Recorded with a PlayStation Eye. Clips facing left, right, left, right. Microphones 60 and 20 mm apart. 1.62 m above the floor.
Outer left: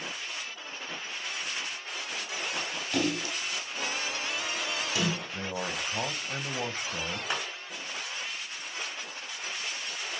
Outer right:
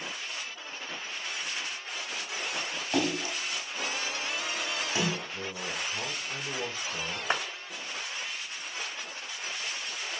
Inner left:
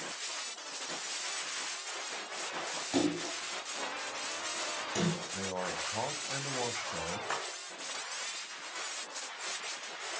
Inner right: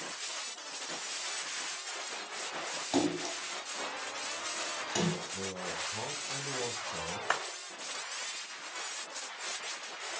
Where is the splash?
25° right (ahead or behind), 4.5 m.